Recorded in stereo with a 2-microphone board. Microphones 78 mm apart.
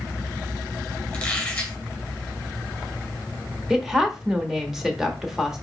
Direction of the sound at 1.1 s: 10° left (ahead or behind).